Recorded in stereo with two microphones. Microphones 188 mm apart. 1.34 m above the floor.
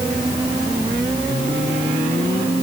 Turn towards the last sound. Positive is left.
No sound to turn to.